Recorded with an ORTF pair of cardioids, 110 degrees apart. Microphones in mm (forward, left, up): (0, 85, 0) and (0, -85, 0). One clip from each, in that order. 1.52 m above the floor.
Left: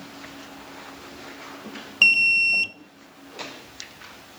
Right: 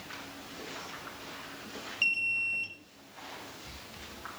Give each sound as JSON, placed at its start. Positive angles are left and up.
{"t": 2.0, "sound": "an alarm", "azimuth_deg": 60, "distance_m": 0.7}